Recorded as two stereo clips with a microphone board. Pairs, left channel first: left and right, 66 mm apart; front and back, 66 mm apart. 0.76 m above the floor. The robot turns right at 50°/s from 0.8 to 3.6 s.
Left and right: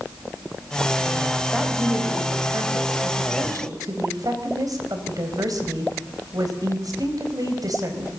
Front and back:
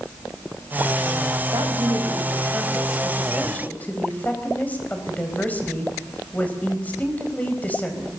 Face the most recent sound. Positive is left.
turn(degrees=-65)